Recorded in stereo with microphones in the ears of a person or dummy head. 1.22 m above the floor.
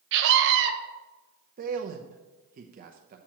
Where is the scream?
70° right (ahead or behind), 1.3 m.